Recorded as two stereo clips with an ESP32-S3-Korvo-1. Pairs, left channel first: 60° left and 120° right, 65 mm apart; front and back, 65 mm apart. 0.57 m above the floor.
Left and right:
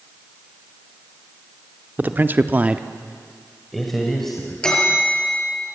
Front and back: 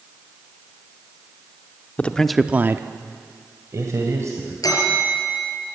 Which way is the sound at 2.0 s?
65° right.